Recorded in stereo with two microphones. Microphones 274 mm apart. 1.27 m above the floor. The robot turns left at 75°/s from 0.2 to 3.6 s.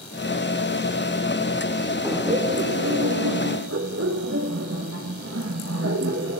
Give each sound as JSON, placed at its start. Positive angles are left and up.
{"t": 2.0, "sound": "laughter", "azimuth_deg": -5, "distance_m": 1.4}